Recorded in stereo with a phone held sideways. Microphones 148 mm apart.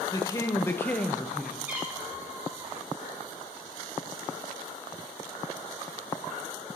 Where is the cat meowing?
10° right (ahead or behind), 2.5 m.